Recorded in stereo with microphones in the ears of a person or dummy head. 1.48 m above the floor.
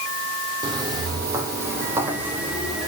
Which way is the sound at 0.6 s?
30° right (ahead or behind).